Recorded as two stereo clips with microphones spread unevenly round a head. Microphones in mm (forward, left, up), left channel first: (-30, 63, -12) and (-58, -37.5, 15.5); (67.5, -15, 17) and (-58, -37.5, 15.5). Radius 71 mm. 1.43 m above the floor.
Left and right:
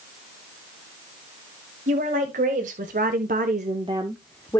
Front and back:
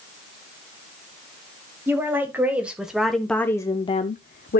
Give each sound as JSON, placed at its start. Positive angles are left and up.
{"t": 1.9, "sound": "a woman speaking", "azimuth_deg": -95, "distance_m": 1.9}